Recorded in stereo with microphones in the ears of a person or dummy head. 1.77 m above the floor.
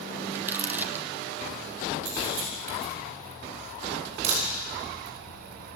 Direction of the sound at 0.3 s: 10° right (ahead or behind).